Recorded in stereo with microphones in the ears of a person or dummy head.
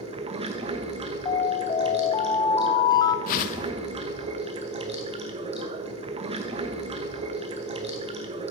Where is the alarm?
25° left (ahead or behind), 0.7 m.